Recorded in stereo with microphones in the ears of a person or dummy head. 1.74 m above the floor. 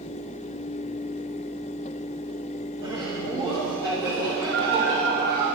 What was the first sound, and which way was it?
Laughter, 25° right (ahead or behind).